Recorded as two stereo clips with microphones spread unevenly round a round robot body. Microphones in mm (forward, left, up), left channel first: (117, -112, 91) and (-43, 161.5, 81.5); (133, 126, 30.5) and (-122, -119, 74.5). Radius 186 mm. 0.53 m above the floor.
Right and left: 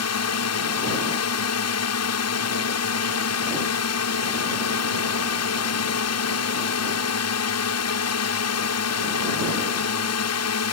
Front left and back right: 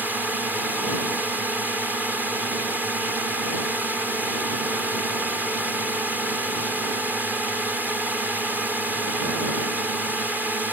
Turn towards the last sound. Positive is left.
turn(degrees=-45)